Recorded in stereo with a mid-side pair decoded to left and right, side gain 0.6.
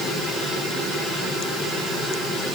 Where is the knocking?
No knocking in this recording.